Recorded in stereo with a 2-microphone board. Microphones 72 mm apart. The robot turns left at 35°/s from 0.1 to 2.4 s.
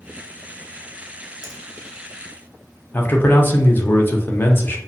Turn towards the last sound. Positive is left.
turn(degrees=30)  # may be behind; listen again after turning